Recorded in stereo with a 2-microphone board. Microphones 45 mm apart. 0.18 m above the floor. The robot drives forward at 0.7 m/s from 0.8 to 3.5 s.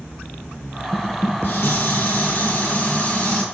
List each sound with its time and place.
0.9 s dishes clattering: 55° left (ahead or behind), 1.6 m; by 3.4 s 30° left (ahead or behind), 2.5 m